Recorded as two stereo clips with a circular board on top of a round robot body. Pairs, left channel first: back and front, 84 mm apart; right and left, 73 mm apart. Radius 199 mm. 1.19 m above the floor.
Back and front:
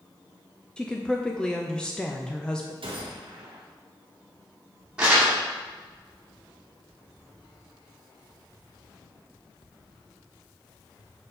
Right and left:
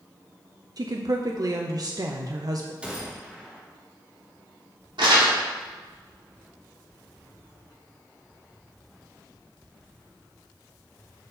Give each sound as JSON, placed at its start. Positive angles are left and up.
{"t": 0.8, "sound": "a woman speaking", "azimuth_deg": 100, "distance_m": 0.8}
{"t": 2.8, "sound": "a gunshot", "azimuth_deg": 15, "distance_m": 0.8}
{"t": 5.0, "sound": "crumpling", "azimuth_deg": 80, "distance_m": 2.0}